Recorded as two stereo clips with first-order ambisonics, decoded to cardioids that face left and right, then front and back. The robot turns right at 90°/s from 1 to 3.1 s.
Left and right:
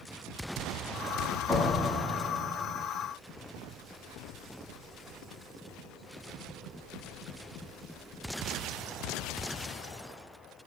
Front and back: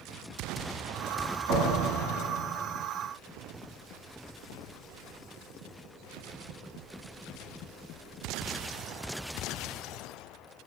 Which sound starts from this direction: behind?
A door slam, at 1.5 s.